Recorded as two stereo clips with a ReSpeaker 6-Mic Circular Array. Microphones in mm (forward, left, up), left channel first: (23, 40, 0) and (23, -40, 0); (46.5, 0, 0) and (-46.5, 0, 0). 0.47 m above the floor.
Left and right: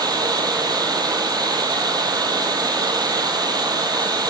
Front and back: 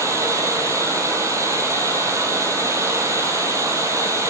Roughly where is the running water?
Behind right.